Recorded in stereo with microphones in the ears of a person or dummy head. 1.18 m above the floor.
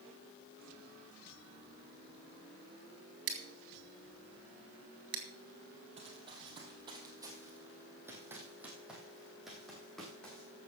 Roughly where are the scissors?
Right.